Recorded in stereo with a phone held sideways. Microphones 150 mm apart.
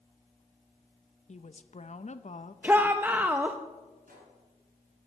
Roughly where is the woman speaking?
Left.